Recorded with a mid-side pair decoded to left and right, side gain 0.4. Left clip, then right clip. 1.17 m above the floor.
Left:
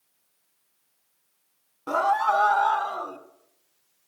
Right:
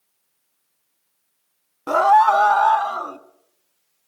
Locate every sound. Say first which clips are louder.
1.9 s a scream: right 8 dB; 50° right, 0.7 m; by 3.2 s 55° right, 1.9 m